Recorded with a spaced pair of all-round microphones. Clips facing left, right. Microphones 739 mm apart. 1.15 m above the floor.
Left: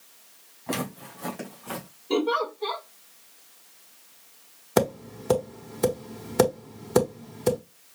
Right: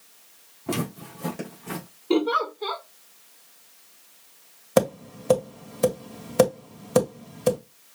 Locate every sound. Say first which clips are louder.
0.7 s footsteps: right 3 dB; 55° right (ahead or behind), 3.5 m; by 1.9 s 50° right (ahead or behind), 4 m
2.1 s a giggle: right 2 dB; 40° right (ahead or behind), 1.3 m
4.8 s tapping: right 2 dB; 5° right (ahead or behind), 1.5 m